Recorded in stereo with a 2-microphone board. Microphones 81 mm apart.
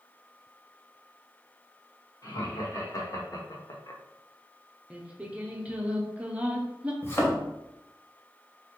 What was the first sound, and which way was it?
Laughter, 45° left (ahead or behind).